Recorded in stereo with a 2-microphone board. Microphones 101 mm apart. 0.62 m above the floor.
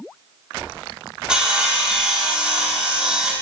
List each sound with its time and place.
1.3 s sawing: 10° right (ahead or behind), 0.5 m